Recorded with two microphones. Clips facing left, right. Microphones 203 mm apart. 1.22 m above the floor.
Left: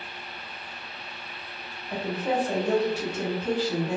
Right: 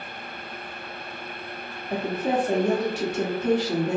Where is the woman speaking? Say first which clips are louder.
Right 3 dB; 55° right (ahead or behind), 0.9 m.